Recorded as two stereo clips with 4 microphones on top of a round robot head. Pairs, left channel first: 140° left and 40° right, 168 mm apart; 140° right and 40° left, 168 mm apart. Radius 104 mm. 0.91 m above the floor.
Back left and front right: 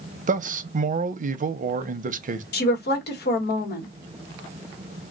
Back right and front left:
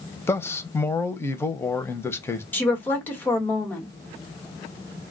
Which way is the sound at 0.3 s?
70° right.